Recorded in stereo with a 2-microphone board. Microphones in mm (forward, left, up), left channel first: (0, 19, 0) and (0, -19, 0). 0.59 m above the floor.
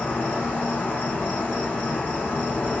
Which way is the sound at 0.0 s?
55° left (ahead or behind).